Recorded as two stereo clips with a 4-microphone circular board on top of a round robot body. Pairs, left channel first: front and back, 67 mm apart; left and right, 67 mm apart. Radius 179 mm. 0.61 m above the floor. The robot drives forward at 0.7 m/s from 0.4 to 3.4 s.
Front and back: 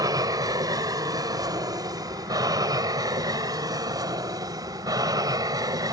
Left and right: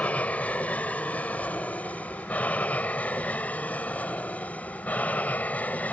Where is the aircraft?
160° left; by 5.9 s 155° left.